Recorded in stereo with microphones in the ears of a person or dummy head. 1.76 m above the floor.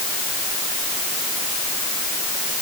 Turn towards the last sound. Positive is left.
No sound to turn to.